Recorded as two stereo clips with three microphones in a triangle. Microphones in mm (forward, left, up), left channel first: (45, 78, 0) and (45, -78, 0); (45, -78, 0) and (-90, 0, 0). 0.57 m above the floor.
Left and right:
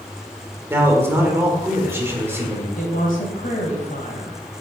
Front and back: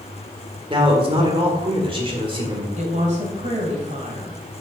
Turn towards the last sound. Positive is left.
turn(degrees=115)